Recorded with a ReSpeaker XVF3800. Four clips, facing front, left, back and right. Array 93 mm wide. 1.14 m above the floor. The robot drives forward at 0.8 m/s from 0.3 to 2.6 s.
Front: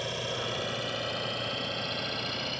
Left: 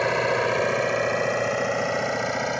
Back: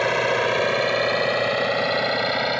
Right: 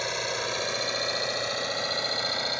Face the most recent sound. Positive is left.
turn(degrees=155)